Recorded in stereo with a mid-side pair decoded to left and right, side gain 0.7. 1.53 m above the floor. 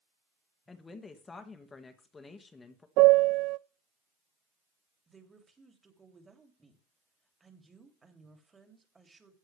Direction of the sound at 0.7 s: 20° left.